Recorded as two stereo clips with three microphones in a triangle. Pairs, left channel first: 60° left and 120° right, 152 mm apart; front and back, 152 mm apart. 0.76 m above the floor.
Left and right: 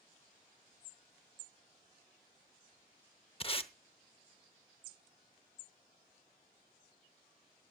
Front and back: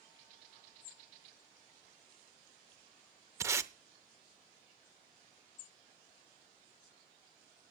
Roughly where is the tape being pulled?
Left.